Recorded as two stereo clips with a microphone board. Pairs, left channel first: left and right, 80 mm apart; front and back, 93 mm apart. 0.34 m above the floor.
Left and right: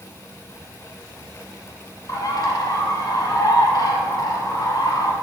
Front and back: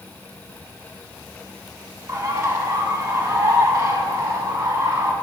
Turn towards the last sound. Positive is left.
turn(degrees=125)